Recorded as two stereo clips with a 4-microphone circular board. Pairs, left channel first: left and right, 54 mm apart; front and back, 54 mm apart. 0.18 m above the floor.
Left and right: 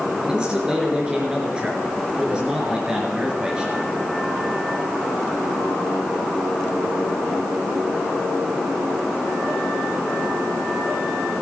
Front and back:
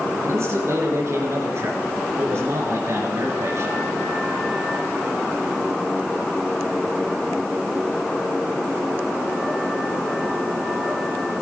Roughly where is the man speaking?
Behind.